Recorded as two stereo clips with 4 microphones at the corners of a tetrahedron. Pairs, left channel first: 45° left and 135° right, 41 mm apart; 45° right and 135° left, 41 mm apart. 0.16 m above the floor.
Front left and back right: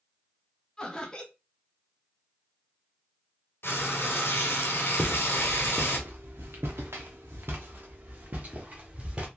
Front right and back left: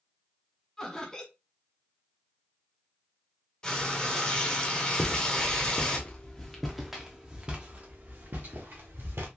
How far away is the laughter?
About 1.0 m.